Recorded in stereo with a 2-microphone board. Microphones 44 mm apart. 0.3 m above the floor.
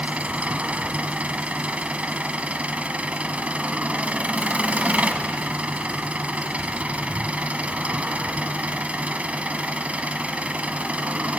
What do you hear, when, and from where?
0.0 s an engine running: 35° right (ahead or behind), 1.1 m